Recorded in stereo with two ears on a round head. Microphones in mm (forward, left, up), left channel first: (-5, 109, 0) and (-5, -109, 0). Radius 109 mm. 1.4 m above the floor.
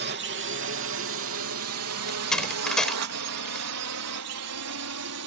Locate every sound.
0.0 s a drone: 45° right (ahead or behind); by 5.3 s 70° right (ahead or behind)
2.1 s a door slam: 5° left (ahead or behind)